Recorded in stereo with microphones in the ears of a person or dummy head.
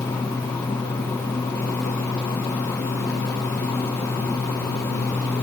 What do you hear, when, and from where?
Only background noise.